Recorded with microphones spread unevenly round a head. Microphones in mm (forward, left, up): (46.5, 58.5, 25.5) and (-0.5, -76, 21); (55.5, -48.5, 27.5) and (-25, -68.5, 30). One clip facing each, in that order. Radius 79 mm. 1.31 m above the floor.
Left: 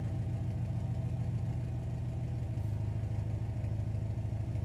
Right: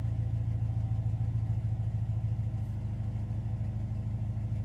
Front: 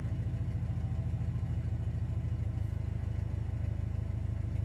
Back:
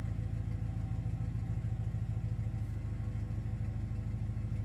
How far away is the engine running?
About 0.8 m.